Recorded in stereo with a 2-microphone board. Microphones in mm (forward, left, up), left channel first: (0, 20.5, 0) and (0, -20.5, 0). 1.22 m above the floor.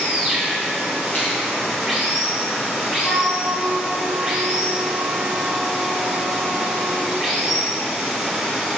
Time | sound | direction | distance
0.0 | running water | 5° right (ahead or behind) | 1.2 m
1.1 | a finger snap | 60° left (ahead or behind) | 1.3 m
3.0 | a flute | 40° left (ahead or behind) | 1.5 m